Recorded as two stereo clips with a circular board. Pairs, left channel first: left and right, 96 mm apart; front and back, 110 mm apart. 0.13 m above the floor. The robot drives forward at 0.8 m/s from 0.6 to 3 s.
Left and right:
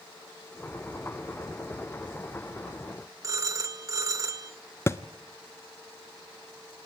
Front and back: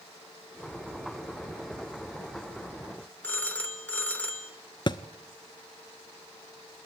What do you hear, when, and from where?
3.2 s a phone ringing: 65° right, 0.9 m
4.9 s a thud: 35° left, 0.5 m